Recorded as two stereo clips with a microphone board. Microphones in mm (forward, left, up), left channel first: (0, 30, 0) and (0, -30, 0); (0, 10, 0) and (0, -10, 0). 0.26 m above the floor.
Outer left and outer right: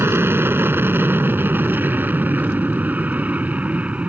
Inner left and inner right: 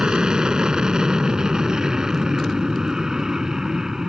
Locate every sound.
0.0 s an aircraft: 40° right (ahead or behind); by 4.1 s 25° right (ahead or behind)